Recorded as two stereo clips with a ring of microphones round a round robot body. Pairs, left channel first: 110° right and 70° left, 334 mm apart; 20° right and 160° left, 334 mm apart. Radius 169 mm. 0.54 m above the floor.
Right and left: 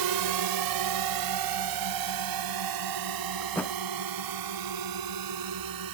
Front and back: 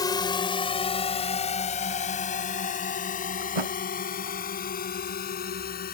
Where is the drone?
55° left; by 6.0 s 40° left.